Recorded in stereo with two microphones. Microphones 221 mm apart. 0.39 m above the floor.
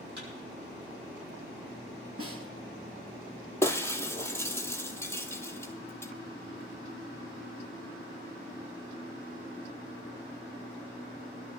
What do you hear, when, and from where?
0.2 s a thud: 55° right (ahead or behind), 9 m
2.2 s a snare drum: 75° right (ahead or behind), 2.5 m
3.6 s breaking glass: 10° left (ahead or behind), 1.1 m